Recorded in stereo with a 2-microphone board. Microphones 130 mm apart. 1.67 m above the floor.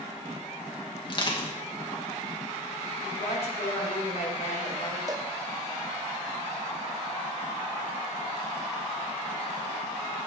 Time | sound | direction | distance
1.1 | crushing | 35° left (ahead or behind) | 2.5 m
3.0 | a woman speaking | 55° left (ahead or behind) | 5.5 m
5.1 | a cowbell | 30° right (ahead or behind) | 0.9 m